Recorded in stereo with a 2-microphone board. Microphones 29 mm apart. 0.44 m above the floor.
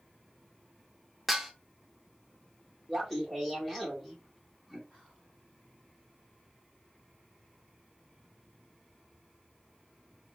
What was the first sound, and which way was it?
Dishes clattering, 5° right (ahead or behind).